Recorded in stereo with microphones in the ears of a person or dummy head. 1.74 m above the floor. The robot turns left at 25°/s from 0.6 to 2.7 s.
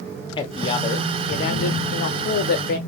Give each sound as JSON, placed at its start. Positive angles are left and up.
{"t": 0.4, "sound": "a man speaking", "azimuth_deg": 140, "distance_m": 0.6}